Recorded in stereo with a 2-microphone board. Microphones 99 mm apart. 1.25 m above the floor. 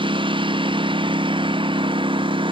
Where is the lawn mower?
60° right (ahead or behind).